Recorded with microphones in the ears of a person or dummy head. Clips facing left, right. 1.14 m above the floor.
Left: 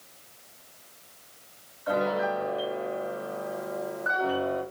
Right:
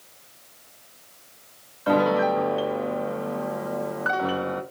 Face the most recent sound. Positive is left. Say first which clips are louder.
# right 6 dB
turn(degrees=-70)  # may be behind; listen again after turning